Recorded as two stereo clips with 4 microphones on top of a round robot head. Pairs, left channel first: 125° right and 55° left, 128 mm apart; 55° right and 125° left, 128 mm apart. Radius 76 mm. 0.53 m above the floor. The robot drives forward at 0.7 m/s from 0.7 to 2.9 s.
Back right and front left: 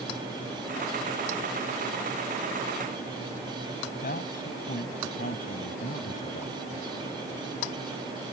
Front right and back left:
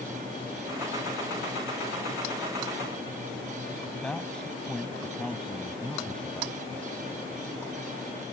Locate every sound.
4.0 s a man speaking: 140° right